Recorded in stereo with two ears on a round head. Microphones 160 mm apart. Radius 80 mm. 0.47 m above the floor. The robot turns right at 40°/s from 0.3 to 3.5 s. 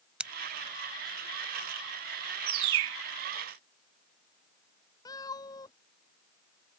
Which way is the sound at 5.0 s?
20° left (ahead or behind).